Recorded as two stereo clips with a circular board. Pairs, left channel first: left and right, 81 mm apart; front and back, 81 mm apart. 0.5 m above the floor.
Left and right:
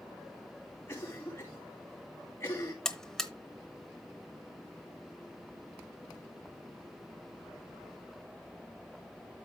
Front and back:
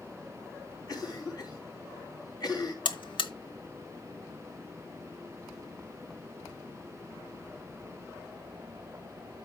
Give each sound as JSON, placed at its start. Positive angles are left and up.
{"t": 0.9, "sound": "a cough", "azimuth_deg": 30, "distance_m": 4.5}
{"t": 2.9, "sound": "a buzzer", "azimuth_deg": 5, "distance_m": 0.9}